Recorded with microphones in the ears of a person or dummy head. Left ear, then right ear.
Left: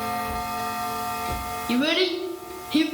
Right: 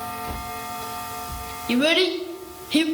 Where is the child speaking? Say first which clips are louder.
Right 3 dB; 15° right (ahead or behind), 0.8 m.